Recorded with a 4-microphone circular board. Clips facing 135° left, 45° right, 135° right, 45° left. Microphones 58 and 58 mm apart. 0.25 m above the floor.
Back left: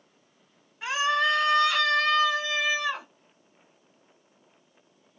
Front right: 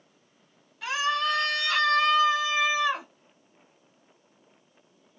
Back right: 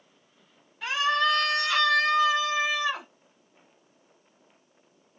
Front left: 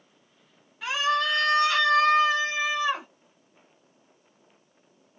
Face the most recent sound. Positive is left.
turn(degrees=10)